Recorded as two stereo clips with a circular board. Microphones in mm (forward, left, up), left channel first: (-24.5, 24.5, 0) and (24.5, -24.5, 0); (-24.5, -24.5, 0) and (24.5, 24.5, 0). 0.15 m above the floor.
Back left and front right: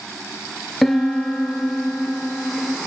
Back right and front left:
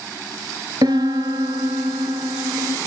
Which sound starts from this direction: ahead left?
A piano, at 0.8 s.